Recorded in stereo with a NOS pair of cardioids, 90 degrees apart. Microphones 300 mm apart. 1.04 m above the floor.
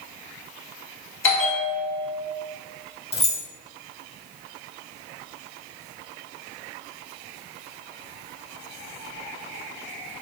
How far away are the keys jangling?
About 1.2 m.